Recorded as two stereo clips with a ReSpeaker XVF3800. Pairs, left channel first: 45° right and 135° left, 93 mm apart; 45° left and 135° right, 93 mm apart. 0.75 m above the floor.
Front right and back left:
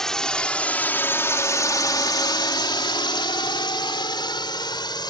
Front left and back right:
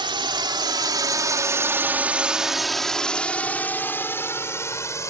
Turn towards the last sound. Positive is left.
turn(degrees=-10)